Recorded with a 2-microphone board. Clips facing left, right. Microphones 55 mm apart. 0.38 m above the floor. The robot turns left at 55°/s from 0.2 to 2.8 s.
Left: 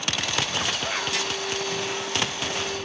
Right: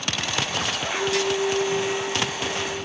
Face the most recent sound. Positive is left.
turn(degrees=175)